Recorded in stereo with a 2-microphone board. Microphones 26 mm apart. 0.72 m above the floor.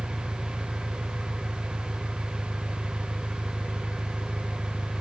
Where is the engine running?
75° right (ahead or behind).